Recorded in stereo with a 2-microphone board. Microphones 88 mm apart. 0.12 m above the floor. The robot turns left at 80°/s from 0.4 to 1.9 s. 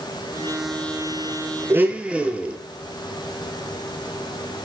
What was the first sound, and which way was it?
A blender, 30° right (ahead or behind).